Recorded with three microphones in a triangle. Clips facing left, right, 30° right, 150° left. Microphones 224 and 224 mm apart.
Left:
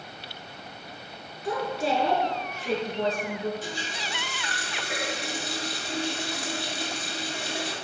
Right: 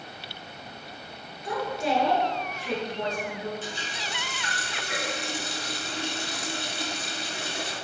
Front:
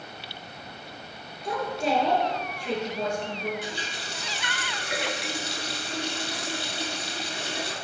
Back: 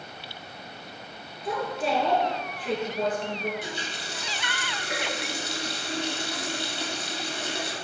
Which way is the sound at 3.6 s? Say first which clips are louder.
Left 1 dB, even; 130° left.